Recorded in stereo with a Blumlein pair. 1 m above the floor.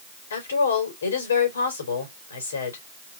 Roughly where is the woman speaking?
Ahead left.